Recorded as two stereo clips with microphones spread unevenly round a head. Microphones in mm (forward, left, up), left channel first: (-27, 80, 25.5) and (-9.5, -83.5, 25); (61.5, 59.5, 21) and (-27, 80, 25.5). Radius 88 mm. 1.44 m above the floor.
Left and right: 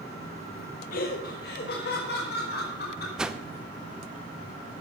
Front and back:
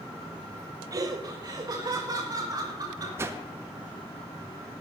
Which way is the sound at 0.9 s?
125° left.